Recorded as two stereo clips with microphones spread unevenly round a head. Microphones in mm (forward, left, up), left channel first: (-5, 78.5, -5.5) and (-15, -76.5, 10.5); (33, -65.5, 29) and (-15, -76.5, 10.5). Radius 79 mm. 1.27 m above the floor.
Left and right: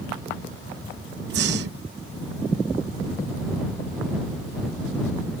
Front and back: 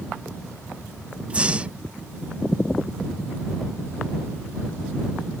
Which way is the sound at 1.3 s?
105° right.